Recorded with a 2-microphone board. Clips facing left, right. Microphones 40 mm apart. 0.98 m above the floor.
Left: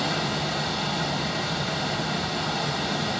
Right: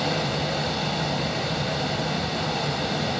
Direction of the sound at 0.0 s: 5° right (ahead or behind).